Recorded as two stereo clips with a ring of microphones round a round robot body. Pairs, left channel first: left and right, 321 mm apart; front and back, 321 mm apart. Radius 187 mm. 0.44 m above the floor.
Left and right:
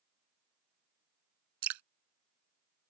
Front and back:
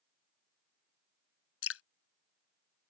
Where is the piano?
I don't hear a piano.